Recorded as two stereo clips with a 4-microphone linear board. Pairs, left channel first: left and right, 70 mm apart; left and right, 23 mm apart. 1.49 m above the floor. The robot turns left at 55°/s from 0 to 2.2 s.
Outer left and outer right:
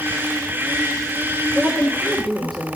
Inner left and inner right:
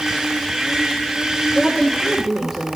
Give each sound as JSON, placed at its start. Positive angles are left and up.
{"t": 1.6, "sound": "a woman speaking", "azimuth_deg": -150, "distance_m": 1.3}